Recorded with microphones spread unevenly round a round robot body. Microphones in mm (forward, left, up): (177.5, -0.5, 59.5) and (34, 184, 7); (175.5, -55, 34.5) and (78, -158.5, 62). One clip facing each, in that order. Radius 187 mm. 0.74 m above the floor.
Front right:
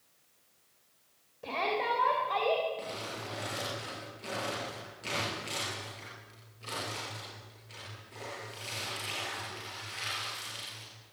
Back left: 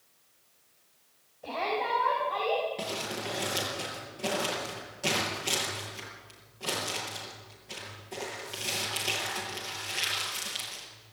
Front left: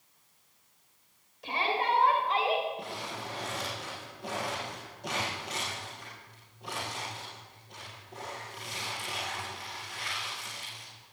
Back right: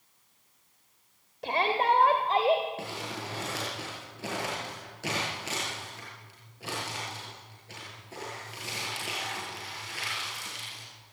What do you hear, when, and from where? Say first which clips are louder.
1.4 s a shout: back left 1 dB, back right 4 dB; 105° right, 3 m; by 2.6 s 85° right, 4 m
2.8 s crumpling: back left 5 dB, back right 1 dB; straight behind, 7 m